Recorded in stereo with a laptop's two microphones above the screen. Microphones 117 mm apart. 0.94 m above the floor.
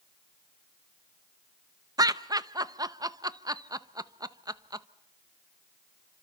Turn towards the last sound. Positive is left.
turn(degrees=-35)  # may be behind; listen again after turning